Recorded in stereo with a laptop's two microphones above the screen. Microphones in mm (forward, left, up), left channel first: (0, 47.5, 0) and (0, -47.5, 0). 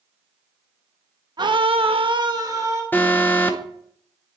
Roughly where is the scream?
Right.